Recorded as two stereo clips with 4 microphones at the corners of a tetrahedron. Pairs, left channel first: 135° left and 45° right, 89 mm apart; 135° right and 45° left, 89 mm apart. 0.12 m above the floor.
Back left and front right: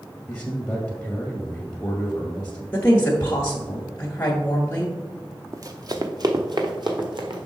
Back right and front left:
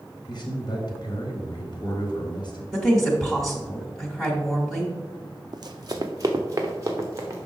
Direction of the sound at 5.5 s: 10° left.